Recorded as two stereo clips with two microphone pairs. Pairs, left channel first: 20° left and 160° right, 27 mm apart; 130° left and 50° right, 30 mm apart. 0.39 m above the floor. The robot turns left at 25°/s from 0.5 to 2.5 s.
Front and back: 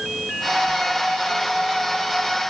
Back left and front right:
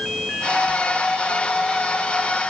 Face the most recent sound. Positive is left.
No sound to turn to.